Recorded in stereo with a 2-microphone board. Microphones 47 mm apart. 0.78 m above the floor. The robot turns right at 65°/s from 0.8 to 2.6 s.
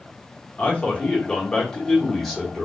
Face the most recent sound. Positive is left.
turn(degrees=-10)  # may be behind; listen again after turning